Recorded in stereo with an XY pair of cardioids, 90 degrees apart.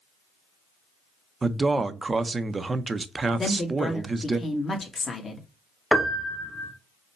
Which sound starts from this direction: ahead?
A piano, at 5.9 s.